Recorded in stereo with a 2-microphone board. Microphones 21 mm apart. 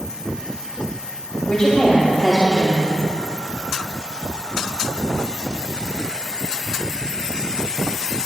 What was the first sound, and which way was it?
A woman speaking, 35° left (ahead or behind).